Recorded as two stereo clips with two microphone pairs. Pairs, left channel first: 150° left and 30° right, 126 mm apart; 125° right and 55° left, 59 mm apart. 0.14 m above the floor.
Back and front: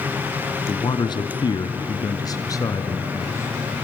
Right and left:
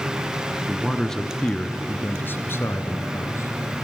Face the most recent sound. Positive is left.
turn(degrees=-150)